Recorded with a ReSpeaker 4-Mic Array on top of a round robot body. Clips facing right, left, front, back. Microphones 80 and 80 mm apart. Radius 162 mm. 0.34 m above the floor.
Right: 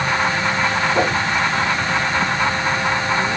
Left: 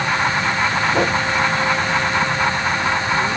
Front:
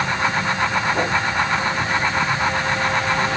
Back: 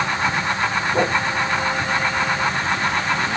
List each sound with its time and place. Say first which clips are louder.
0.9 s a whoosh: right 1 dB, back 2 dB; 115° left, 9 m